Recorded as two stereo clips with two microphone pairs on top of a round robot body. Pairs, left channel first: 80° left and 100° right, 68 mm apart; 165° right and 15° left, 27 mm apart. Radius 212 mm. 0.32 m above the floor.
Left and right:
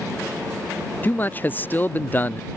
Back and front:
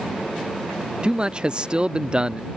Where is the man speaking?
45° left.